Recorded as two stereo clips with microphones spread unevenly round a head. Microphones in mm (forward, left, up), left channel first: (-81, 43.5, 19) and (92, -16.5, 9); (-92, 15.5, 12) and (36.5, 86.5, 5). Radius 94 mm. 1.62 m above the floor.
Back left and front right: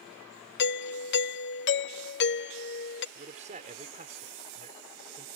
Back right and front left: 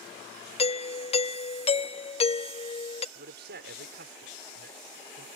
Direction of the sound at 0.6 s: 165° left.